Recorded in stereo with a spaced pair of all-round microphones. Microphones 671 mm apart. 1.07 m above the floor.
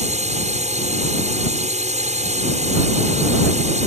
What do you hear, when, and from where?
0.0 s a drone: 10° right (ahead or behind)